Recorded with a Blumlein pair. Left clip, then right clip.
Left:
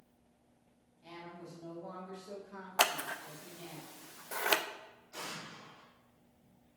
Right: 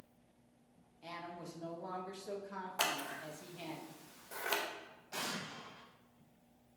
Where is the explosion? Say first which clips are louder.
Right 3 dB; 35° right, 2.5 m.